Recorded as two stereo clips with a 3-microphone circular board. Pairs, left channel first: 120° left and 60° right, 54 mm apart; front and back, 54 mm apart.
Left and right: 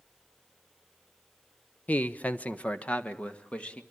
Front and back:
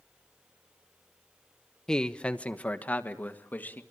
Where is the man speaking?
75° left, 0.8 m; by 3.8 s 55° left, 2.5 m.